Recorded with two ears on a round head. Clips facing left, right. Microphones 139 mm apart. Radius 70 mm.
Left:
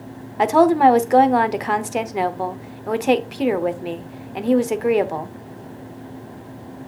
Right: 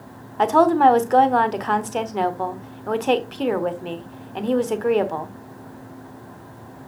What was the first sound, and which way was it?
A woman speaking, 10° left (ahead or behind).